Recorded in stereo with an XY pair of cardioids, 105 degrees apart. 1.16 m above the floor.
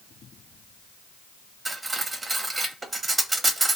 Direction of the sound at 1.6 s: 25° right.